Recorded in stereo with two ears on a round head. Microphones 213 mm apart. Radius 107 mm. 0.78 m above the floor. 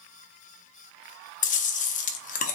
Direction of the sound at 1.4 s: 35° left (ahead or behind).